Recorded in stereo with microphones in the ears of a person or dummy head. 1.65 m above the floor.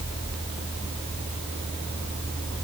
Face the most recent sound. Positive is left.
No sound to turn to.